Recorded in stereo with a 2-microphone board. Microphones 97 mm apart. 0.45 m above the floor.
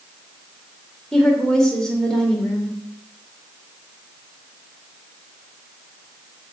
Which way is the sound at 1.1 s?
5° left (ahead or behind).